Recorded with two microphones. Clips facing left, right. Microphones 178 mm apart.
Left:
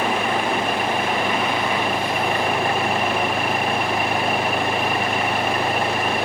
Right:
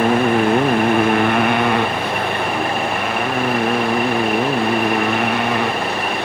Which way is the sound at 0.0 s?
60° right (ahead or behind).